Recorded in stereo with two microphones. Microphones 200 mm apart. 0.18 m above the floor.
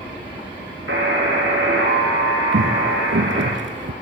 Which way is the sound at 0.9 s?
80° right.